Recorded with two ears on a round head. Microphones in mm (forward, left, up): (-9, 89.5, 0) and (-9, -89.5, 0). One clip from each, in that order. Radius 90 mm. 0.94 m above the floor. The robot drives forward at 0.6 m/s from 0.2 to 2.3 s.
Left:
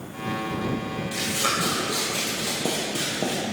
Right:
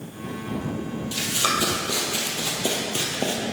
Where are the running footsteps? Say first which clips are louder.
Right 2 dB; 45° right (ahead or behind), 1.8 m; by 3.4 s 55° right (ahead or behind), 1.6 m.